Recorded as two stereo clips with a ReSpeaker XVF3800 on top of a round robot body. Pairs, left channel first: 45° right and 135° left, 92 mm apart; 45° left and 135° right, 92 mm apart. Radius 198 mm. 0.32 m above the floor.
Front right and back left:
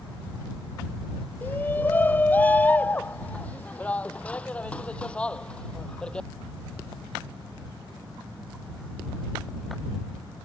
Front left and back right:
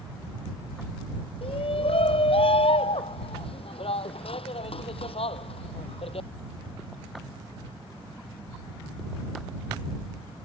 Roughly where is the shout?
Ahead left.